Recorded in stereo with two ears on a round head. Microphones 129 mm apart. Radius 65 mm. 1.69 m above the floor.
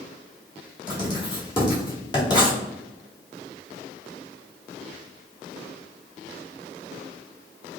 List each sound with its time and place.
0.9 s writing: 30° left (ahead or behind), 1.8 m